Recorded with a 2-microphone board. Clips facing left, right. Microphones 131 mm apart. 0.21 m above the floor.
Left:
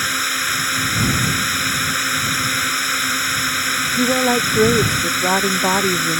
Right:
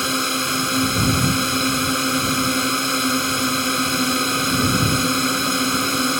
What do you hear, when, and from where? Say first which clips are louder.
0.0 s a drone: right 3 dB; 25° right (ahead or behind)
4.0 s a woman speaking: left 5 dB; 75° left (ahead or behind)